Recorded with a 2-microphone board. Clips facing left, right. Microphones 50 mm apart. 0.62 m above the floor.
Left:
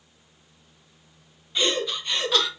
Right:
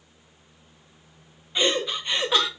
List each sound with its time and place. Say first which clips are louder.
1.6 s laughter: right 1 dB; 15° right (ahead or behind), 0.6 m